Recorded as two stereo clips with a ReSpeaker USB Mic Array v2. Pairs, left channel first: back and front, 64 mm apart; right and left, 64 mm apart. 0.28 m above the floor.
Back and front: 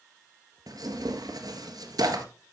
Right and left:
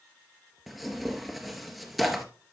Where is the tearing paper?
5° left, 1.2 m.